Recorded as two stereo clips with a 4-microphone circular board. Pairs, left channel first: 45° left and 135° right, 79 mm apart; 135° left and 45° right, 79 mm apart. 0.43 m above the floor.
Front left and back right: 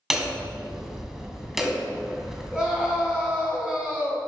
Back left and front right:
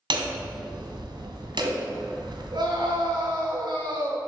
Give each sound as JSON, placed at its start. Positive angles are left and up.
{"t": 0.1, "sound": "hammering", "azimuth_deg": -50, "distance_m": 1.8}
{"t": 2.5, "sound": "a scream", "azimuth_deg": -55, "distance_m": 4.0}